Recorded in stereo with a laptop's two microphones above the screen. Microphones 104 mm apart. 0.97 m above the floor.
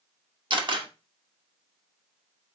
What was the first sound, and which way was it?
A camera shutter, 50° right (ahead or behind).